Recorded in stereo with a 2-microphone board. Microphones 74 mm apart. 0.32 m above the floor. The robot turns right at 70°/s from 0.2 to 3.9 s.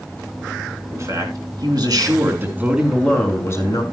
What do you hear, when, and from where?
0.9 s a man speaking: 140° right, 3.5 m; by 3.8 s 60° left, 3.5 m